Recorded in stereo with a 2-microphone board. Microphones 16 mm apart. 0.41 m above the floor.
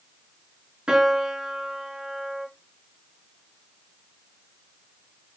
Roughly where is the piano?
Right.